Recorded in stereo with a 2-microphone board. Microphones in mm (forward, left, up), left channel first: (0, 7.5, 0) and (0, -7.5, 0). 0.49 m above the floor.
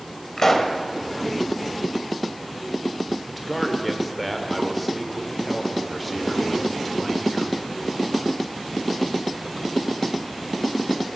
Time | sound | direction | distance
0.4 | a pop | 30° left (ahead or behind) | 1.2 m
3.3 | a man speaking | 5° left (ahead or behind) | 1.6 m